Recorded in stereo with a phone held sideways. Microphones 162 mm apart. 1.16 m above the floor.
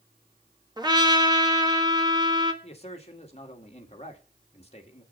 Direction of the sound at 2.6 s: 40° left (ahead or behind).